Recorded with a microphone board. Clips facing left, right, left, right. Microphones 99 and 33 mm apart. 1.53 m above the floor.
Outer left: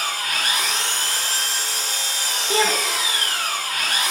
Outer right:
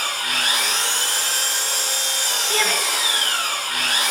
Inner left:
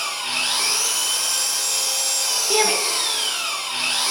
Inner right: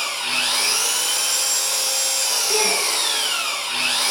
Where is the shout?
25° left (ahead or behind), 2.5 m.